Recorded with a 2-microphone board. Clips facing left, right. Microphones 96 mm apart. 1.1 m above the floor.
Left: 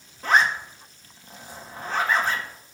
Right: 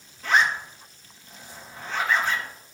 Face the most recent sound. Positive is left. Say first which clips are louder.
# left 1 dB
turn(degrees=40)  # may be behind; listen again after turning